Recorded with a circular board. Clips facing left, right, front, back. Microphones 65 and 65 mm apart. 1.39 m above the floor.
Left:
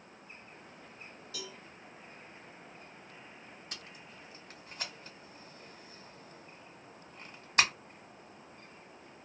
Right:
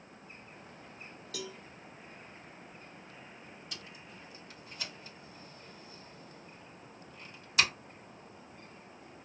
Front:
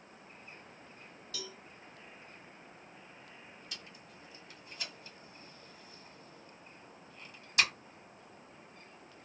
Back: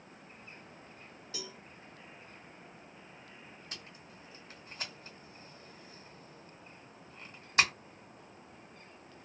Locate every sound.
1.3 s a cowbell: 115° right, 0.6 m
3.7 s tape being pulled: 130° left, 1.2 m